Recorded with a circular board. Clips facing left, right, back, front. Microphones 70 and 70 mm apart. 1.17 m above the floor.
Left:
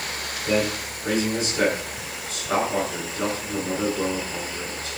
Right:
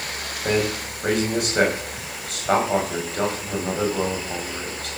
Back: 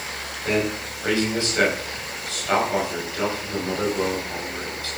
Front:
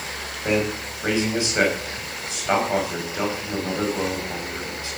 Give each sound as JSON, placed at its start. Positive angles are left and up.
{"t": 0.4, "sound": "a man speaking", "azimuth_deg": -70, "distance_m": 5.5}